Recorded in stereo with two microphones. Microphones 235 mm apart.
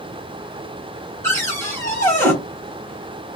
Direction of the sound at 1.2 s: 10° left (ahead or behind).